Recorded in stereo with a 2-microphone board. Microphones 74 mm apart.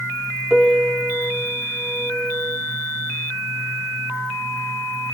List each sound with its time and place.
0.5 s a piano: 5° right (ahead or behind), 1.3 m